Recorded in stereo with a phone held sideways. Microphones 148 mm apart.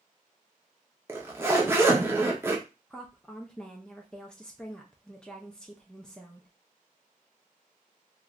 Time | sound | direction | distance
1.1 | a zipper | 15° right (ahead or behind) | 0.7 m
2.9 | a woman speaking | 5° left (ahead or behind) | 0.5 m